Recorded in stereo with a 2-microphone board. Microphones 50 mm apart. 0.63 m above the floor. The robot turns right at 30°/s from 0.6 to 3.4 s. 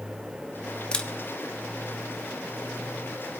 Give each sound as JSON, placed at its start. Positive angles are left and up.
{"t": 0.9, "sound": "a camera shutter", "side_deg": 20, "distance_m": 0.9}